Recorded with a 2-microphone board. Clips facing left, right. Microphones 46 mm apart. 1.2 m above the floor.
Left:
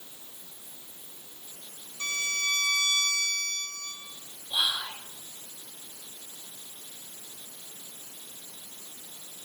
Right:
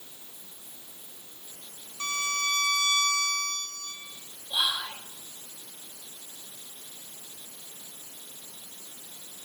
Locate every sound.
2.0 s a violin: 30° right (ahead or behind), 6.5 m
4.5 s whispering: centre (ahead or behind), 3 m